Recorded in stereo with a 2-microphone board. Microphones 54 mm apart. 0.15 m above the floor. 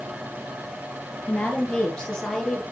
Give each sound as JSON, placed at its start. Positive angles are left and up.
{"t": 1.3, "sound": "a woman speaking", "side_deg": 25, "distance_m": 3.0}